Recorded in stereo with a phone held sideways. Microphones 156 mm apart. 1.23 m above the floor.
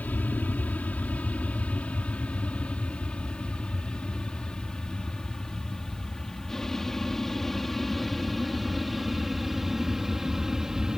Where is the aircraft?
10° left (ahead or behind); by 11.0 s 5° right (ahead or behind).